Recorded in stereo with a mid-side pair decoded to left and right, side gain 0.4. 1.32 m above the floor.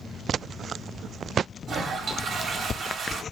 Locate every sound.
1.7 s a toilet flushing: 55° right, 0.9 m